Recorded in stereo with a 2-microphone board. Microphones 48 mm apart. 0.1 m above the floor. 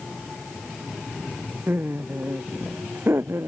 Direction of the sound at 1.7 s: 50° right (ahead or behind).